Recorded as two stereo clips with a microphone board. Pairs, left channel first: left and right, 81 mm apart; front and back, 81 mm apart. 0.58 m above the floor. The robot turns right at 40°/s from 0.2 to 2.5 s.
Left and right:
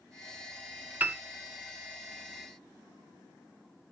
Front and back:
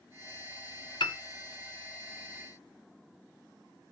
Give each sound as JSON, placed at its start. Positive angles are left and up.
{"t": 1.0, "sound": "a piano", "azimuth_deg": -20, "distance_m": 0.5}